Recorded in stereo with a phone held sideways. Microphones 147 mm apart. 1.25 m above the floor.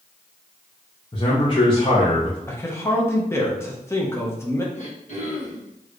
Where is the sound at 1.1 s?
35° left (ahead or behind), 1.2 m.